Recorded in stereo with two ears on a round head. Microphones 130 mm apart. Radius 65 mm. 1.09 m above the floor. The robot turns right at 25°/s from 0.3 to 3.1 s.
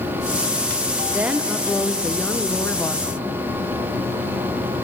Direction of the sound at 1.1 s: 20° right.